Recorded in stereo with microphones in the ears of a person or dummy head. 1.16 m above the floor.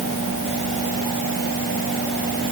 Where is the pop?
No pop in this recording.